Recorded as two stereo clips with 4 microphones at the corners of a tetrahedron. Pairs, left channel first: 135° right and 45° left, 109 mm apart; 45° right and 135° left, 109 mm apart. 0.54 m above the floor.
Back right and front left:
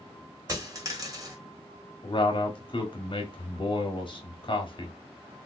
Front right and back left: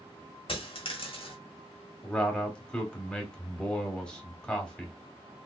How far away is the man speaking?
About 1.2 m.